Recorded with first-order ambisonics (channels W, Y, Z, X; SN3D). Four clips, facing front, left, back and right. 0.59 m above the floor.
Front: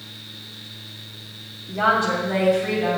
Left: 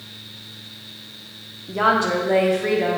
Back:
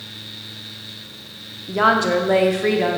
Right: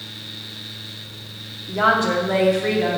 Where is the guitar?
No guitar in this recording.